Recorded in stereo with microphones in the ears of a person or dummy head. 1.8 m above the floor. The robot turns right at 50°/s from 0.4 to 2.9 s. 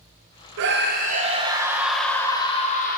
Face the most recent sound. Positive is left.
turn(degrees=45)